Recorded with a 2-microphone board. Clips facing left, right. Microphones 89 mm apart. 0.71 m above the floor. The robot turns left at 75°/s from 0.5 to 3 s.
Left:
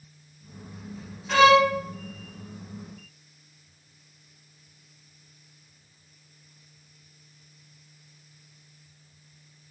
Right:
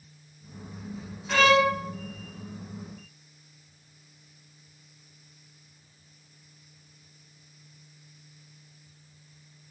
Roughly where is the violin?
Centre.